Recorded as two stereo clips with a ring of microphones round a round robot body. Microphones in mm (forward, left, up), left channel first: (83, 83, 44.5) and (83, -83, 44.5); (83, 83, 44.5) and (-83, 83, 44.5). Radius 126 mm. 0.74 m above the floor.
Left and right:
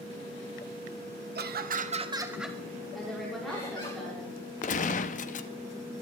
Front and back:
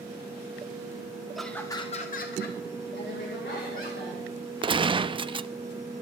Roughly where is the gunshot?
Behind left.